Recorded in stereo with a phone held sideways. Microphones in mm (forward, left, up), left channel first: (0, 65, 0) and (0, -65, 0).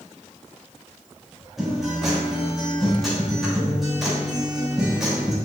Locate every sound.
1.6 s a guitar: centre (ahead or behind), 3.5 m